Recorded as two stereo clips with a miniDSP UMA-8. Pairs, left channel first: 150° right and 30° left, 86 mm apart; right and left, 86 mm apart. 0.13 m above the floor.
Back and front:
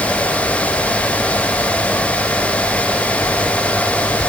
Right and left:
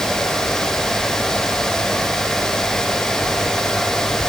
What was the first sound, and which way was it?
Only background noise.